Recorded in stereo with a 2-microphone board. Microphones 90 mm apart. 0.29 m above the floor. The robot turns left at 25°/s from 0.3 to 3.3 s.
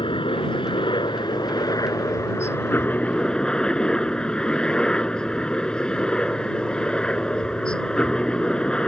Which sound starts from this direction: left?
A helicopter, at 0.0 s.